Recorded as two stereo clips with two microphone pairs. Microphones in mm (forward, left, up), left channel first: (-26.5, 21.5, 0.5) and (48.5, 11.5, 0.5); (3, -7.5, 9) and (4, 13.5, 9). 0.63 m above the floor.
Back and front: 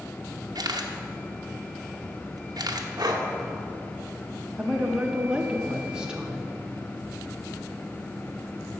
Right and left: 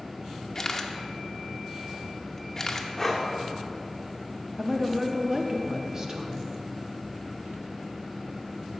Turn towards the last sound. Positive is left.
turn(degrees=60)